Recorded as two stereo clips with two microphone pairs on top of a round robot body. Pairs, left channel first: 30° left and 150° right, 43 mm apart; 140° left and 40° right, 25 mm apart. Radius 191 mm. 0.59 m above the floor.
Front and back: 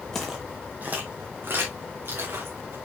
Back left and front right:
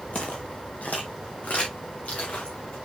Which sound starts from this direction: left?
Footsteps, at 0.1 s.